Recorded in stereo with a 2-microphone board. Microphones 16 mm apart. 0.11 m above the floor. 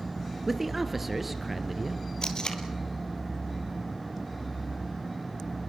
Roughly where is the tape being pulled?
Left.